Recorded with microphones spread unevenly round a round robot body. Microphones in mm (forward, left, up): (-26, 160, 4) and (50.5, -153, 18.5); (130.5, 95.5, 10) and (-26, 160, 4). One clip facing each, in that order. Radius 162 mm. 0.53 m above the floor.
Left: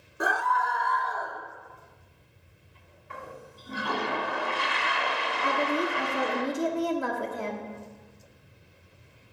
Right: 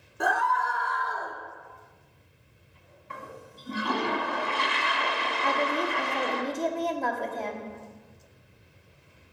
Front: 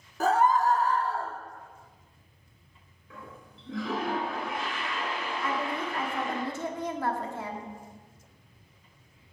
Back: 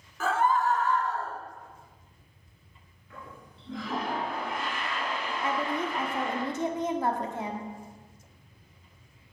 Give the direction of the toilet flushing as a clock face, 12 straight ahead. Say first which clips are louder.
Left 1 dB, even; 3 o'clock.